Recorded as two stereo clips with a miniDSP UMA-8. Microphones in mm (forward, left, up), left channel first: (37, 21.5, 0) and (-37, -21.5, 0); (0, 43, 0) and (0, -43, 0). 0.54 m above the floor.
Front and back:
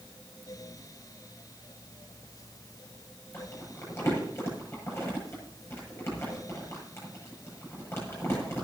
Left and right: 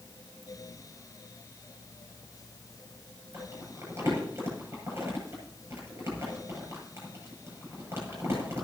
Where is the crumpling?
30° right, 8.5 m.